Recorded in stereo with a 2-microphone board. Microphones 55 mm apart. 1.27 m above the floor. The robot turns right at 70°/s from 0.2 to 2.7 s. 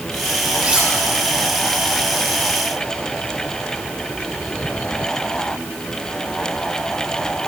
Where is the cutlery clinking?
30° right (ahead or behind), 6.5 m; by 0.9 s 10° right (ahead or behind), 6.5 m.